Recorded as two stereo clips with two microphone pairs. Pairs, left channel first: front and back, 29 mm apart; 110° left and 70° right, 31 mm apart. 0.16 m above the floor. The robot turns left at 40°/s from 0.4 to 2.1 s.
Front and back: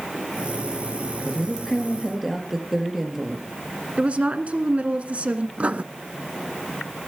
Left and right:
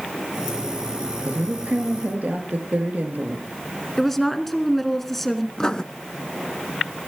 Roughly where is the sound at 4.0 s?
Behind.